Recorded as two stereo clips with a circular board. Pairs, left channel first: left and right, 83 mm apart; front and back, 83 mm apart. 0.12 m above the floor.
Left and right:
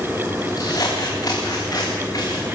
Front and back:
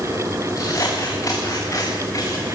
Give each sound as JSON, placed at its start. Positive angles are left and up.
{"t": 0.6, "sound": "scissors", "azimuth_deg": 50, "distance_m": 5.5}